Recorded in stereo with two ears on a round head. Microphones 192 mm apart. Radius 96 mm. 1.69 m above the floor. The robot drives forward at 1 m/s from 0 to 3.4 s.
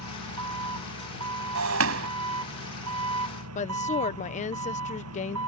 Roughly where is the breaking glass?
Right.